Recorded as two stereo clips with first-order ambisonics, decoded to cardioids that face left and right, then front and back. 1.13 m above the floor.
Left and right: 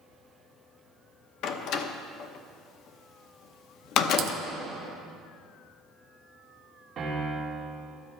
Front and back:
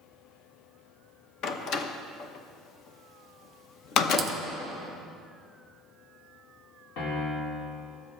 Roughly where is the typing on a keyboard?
Behind right.